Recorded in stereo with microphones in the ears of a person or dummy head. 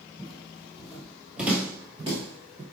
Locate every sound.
0.2 s footsteps: 5° left (ahead or behind), 3 m; by 2.6 s 20° right (ahead or behind), 1.3 m